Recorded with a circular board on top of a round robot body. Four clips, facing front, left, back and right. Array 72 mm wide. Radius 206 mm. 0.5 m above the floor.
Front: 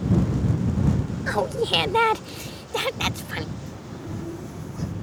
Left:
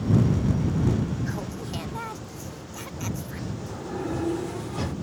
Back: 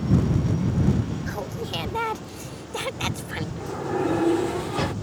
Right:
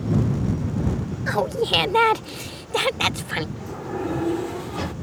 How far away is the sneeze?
No sneeze in this recording.